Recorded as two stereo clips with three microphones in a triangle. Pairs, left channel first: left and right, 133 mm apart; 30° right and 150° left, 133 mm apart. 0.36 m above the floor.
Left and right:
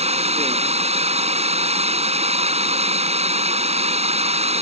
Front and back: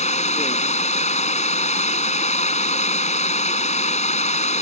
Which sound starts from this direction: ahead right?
Running water, at 0.0 s.